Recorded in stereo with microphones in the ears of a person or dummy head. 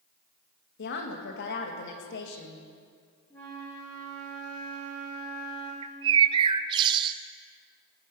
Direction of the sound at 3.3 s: 10° left (ahead or behind).